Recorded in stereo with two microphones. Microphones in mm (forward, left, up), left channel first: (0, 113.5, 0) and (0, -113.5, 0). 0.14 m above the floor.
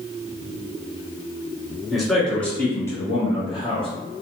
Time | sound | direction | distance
1.9 | a man speaking | centre (ahead or behind) | 1.2 m